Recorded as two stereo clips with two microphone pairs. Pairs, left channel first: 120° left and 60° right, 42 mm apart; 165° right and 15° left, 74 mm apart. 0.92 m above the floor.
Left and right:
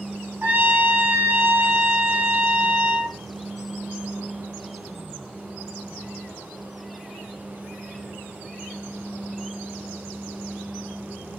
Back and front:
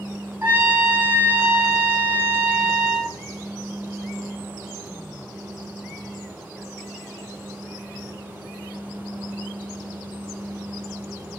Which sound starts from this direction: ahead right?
A trumpet, at 0.4 s.